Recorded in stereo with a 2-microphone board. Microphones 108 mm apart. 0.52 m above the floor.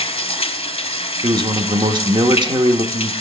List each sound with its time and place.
0.0 s running water: 70° left (ahead or behind), 0.8 m
1.2 s a man speaking: 45° right (ahead or behind), 0.9 m